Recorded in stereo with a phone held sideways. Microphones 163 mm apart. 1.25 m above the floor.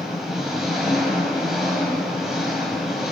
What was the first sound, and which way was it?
An engine running, centre (ahead or behind).